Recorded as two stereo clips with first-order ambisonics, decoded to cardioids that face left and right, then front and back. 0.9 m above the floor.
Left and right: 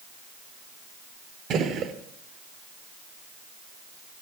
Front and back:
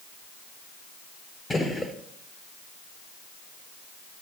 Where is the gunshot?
75° right, 0.6 m.